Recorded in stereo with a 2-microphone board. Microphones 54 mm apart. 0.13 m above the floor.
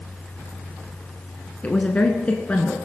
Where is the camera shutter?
No camera shutter in this recording.